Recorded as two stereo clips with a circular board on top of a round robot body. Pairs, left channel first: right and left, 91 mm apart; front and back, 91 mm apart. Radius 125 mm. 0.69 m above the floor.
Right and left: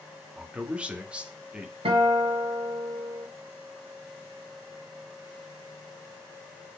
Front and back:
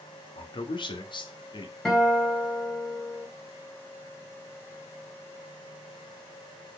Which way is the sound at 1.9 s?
85° left.